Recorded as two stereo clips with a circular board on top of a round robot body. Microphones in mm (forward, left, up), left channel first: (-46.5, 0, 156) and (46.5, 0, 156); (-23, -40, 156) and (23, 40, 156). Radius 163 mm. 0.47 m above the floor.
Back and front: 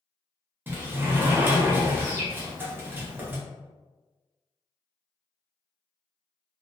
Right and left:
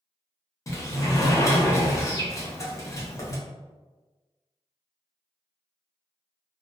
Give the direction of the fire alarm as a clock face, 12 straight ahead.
No fire alarm in this recording.